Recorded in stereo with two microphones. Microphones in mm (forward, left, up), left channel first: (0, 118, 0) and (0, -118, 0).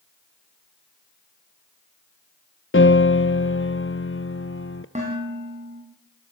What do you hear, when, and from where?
2.7 s a piano: 55° left (ahead or behind), 0.9 m
5.0 s dishes clattering: 30° right (ahead or behind), 8 m